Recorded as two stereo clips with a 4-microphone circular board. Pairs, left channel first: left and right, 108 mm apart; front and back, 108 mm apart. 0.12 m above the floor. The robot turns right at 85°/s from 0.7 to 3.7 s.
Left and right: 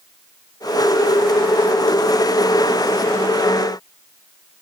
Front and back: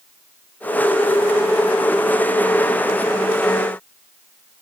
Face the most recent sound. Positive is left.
No sound to turn to.